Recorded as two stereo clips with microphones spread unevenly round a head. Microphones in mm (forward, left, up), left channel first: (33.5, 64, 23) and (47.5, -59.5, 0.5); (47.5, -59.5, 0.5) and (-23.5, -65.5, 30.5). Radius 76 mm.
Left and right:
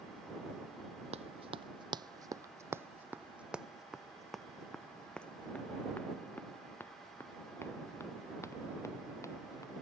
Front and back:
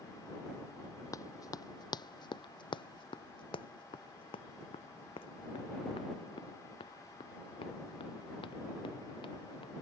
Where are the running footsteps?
45° right; by 9.8 s 35° left.